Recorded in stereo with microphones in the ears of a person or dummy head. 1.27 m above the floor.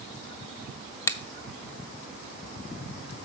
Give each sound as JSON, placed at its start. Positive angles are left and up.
{"t": 1.1, "sound": "a finger snap", "side_deg": 15, "distance_m": 0.6}